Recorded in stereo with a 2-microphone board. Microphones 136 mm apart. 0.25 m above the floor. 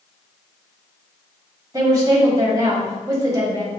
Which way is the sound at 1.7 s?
25° right (ahead or behind).